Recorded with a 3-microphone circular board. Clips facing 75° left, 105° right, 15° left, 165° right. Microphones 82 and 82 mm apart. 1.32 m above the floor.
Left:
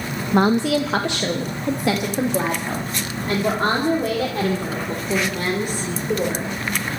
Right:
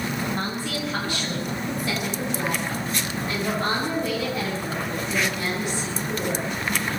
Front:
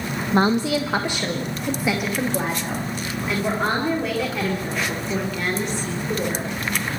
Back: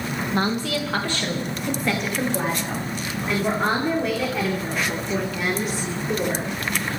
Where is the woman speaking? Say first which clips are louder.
Left 11 dB, front 6 dB; 75° left, 0.9 m; by 6.5 s 110° left, 4.5 m.